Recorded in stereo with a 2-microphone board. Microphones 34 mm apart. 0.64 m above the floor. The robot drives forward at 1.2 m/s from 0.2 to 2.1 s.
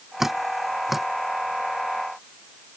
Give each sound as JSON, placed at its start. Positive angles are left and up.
{"t": 0.2, "sound": "dripping", "side_deg": -10}